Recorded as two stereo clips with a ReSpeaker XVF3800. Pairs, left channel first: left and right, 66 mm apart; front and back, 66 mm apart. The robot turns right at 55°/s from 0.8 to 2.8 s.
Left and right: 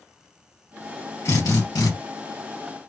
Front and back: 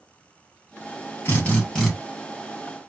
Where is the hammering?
I don't hear hammering.